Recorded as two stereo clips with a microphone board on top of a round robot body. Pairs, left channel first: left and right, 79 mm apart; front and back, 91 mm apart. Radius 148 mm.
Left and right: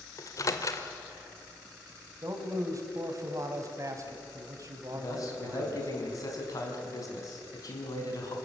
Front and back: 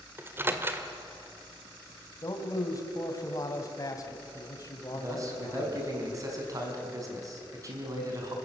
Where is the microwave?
120° left, 1.9 m.